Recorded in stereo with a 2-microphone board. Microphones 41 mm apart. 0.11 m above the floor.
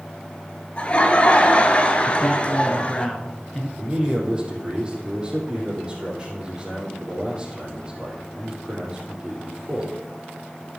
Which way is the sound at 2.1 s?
5° left (ahead or behind).